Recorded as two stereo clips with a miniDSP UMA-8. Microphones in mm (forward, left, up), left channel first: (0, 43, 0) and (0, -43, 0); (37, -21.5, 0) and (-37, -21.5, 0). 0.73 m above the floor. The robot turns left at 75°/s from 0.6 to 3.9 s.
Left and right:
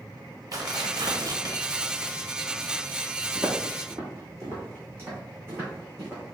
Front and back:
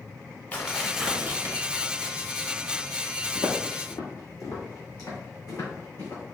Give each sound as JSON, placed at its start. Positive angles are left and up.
{"t": 0.5, "sound": "tearing paper", "azimuth_deg": -65, "distance_m": 0.9}
{"t": 3.4, "sound": "footsteps", "azimuth_deg": 5, "distance_m": 1.7}